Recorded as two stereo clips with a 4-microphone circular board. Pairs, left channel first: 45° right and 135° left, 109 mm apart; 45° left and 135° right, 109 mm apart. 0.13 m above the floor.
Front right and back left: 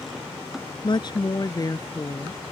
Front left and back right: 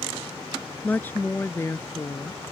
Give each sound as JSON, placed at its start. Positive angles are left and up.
{"t": 0.8, "sound": "a woman speaking", "azimuth_deg": -25}